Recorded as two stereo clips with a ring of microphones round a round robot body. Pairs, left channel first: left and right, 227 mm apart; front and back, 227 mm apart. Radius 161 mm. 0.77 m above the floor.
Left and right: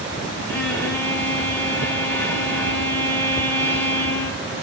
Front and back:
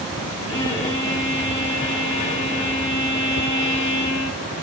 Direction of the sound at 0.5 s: 25° left.